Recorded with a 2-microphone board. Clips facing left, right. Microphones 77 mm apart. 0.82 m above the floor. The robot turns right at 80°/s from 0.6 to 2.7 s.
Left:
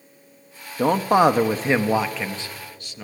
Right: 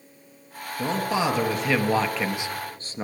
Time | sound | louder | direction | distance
0.8 | a man speaking | left 8 dB | 70° left | 0.7 m